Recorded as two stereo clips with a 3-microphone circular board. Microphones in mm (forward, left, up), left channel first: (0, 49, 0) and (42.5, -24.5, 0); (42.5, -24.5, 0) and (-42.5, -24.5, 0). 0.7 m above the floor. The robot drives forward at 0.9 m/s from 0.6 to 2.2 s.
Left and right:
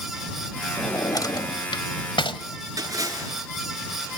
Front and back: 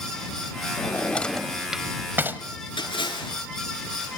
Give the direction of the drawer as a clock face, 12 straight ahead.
10 o'clock.